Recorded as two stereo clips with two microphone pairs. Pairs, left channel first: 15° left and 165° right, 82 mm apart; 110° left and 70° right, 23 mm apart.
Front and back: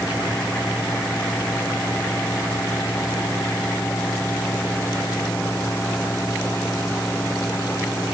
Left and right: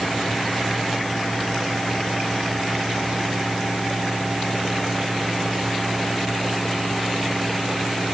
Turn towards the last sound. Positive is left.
No sound to turn to.